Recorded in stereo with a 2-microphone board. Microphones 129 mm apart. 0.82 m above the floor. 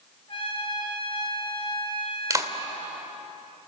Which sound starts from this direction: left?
A trumpet, at 0.3 s.